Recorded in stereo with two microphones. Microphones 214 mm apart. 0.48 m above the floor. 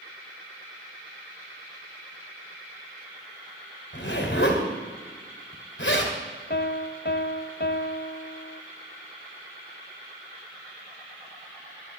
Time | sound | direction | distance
3.9 | a zipper | 60° left (ahead or behind) | 2.5 m
6.5 | a piano | 50° left (ahead or behind) | 0.6 m